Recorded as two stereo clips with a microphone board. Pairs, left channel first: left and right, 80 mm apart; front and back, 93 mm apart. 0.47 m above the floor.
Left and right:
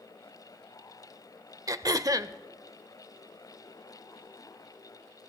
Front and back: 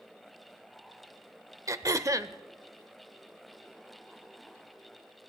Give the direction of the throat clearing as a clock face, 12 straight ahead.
4 o'clock.